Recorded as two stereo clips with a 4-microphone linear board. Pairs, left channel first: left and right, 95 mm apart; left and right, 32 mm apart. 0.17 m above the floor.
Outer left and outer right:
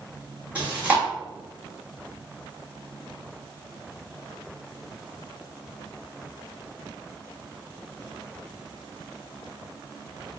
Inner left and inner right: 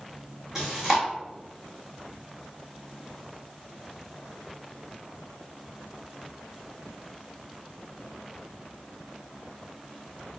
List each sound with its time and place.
0.6 s chewing: 15° right (ahead or behind), 1.9 m